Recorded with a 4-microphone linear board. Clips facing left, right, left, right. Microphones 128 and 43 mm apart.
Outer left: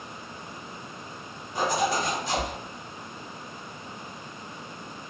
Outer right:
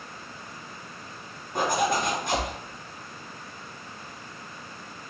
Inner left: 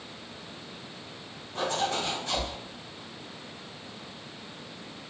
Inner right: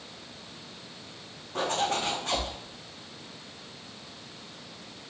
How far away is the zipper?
About 0.9 m.